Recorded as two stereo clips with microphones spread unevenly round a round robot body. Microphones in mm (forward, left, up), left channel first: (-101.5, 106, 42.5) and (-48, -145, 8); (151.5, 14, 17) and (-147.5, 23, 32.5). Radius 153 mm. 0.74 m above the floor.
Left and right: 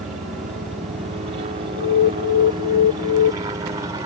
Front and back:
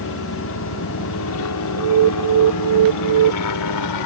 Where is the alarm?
140° left.